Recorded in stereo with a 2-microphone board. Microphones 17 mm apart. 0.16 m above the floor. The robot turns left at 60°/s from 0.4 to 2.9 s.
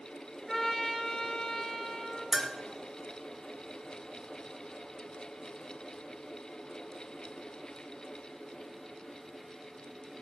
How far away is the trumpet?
About 3 m.